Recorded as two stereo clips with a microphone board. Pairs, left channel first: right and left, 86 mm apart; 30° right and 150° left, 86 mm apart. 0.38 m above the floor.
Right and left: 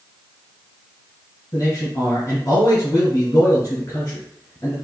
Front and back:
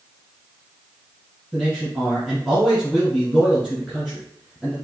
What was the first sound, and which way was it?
A man speaking, 125° right.